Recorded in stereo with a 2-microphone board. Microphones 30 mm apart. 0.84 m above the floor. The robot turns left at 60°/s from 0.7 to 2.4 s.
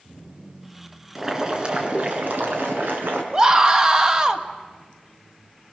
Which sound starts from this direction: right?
A scream, at 3.3 s.